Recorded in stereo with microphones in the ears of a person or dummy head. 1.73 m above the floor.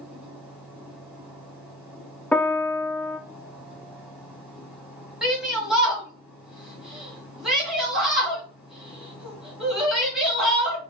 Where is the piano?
5° left (ahead or behind), 0.6 m.